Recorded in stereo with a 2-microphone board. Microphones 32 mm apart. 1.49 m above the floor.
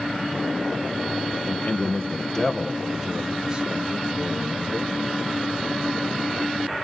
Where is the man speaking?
50° left (ahead or behind), 1.8 m; by 4.9 s 50° right (ahead or behind), 3 m.